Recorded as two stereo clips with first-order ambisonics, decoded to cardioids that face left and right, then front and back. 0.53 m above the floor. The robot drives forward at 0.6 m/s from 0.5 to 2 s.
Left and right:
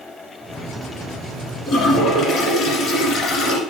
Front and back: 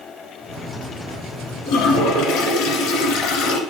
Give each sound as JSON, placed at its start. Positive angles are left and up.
{"t": 1.7, "sound": "a toilet flushing", "azimuth_deg": 35, "distance_m": 1.7}